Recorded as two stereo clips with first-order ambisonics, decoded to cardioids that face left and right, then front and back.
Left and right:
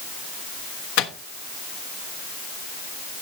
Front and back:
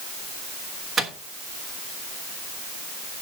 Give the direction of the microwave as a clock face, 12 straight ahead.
8 o'clock.